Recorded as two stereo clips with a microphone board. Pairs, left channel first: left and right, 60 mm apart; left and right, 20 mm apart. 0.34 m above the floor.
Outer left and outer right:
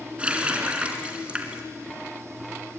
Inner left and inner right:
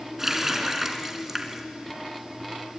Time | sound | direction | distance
0.2 | a running tap | 20° right (ahead or behind) | 3 m